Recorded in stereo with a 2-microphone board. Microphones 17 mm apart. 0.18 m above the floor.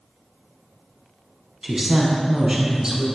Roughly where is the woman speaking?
Right.